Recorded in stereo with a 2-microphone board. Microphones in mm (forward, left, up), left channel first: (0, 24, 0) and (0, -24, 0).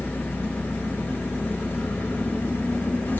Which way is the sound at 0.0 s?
50° left (ahead or behind).